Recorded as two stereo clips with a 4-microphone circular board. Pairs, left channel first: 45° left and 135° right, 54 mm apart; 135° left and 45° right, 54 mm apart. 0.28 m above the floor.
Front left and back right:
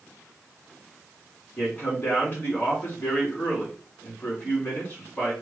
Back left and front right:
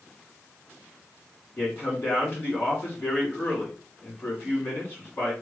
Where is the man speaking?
95° left, 2.5 m.